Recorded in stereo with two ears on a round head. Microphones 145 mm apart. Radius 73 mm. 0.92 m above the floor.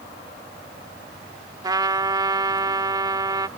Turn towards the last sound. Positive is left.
turn(degrees=-25)  # may be behind; listen again after turning